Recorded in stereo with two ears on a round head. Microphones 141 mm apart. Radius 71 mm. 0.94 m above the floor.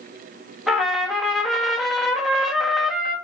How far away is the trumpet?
About 1.8 m.